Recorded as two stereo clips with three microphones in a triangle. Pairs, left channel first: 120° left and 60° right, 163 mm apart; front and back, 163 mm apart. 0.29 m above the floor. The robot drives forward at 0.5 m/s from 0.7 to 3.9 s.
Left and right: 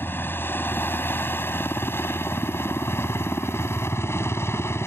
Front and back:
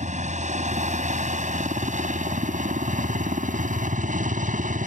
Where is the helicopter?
165° right; by 4.9 s 170° right.